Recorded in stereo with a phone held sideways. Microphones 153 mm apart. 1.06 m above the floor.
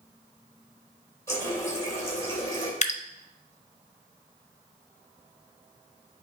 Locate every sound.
1.3 s a running tap: 20° left (ahead or behind), 3 m
2.8 s dripping: 50° left (ahead or behind), 0.6 m